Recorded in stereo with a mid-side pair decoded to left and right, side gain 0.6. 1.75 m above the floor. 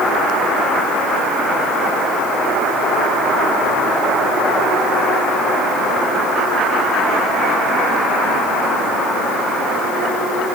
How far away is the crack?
No crack in this recording.